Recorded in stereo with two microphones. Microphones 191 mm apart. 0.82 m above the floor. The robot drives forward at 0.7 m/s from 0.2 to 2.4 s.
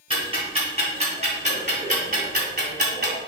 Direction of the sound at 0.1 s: 30° right (ahead or behind).